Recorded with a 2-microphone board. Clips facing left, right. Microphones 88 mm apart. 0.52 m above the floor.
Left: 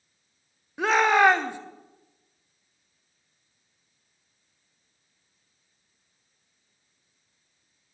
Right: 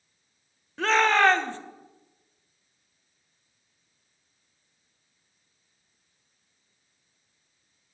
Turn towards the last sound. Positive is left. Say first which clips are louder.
# left 1 dB
turn(degrees=15)  # may be behind; listen again after turning